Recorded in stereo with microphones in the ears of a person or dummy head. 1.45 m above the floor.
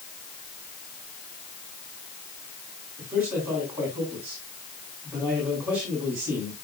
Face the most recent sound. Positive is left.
turn(degrees=-5)  # may be behind; listen again after turning